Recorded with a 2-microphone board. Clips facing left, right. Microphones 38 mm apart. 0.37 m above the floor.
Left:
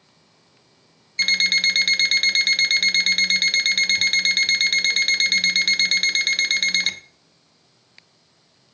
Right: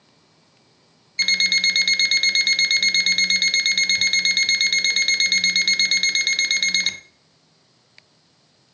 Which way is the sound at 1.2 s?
Centre (ahead or behind).